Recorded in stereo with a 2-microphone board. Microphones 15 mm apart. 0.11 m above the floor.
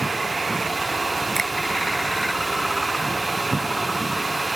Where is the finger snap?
30° left (ahead or behind).